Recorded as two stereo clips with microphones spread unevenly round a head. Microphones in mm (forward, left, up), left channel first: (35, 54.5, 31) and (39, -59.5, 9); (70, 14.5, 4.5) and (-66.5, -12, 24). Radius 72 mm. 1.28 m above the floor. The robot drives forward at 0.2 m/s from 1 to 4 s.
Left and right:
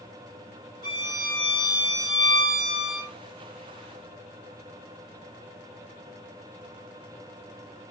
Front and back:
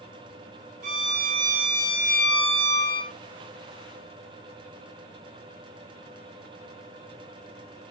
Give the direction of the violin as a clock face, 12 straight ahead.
7 o'clock.